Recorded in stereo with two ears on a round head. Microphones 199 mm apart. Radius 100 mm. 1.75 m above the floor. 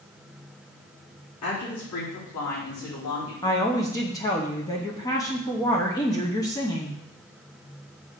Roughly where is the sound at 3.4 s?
Centre.